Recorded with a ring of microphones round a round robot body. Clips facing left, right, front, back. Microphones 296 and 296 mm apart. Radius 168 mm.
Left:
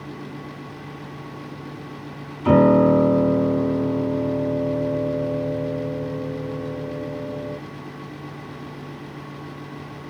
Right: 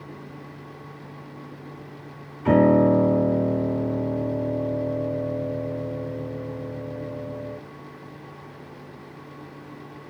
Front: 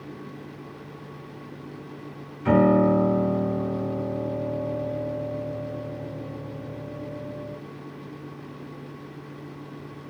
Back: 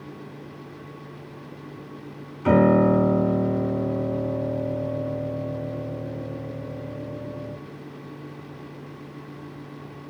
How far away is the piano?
About 1.8 m.